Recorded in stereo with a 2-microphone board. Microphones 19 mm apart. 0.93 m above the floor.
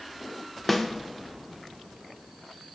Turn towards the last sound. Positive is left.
turn(degrees=10)  # may be behind; listen again after turning